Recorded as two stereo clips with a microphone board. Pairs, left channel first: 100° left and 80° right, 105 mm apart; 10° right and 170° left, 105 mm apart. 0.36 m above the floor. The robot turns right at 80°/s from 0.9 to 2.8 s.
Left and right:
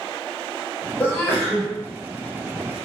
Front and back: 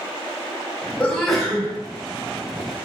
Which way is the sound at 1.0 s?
50° left.